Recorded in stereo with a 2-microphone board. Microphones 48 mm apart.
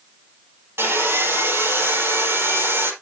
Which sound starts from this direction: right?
Sawing, at 0.8 s.